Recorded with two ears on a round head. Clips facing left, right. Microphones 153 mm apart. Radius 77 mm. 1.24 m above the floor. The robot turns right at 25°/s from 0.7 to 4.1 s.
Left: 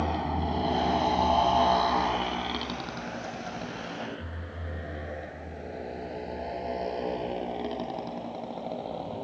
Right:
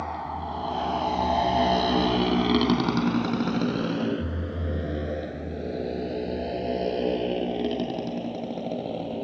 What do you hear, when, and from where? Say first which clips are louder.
0.0 s a motorcycle: left 3 dB; 35° left (ahead or behind); by 9.2 s 30° right (ahead or behind)